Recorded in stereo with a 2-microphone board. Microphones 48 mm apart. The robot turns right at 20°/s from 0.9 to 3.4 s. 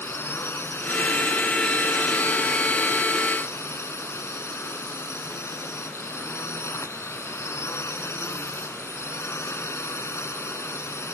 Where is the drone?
55° left; by 11.2 s 105° left.